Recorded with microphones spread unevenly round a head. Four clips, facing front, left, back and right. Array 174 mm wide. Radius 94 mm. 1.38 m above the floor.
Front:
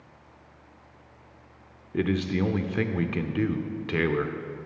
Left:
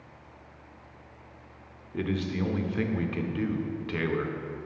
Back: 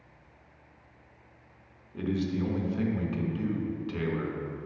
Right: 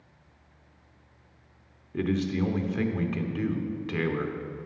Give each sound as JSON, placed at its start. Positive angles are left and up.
{"t": 1.9, "sound": "a man speaking", "azimuth_deg": 0, "distance_m": 0.5}